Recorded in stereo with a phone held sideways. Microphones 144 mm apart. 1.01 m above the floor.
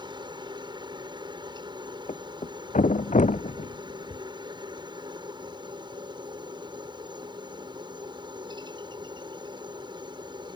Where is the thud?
55° left (ahead or behind).